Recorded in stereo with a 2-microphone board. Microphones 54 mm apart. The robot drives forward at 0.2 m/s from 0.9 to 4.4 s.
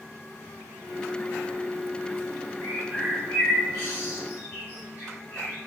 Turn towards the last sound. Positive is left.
turn(degrees=45)  # may be behind; listen again after turning